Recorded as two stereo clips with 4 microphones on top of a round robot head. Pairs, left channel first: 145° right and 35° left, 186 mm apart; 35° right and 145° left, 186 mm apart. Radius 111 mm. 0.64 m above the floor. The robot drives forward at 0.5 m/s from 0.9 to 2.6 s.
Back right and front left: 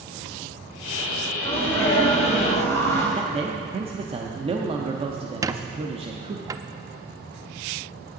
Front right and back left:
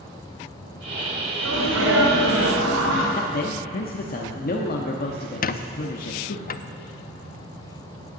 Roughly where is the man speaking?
Ahead.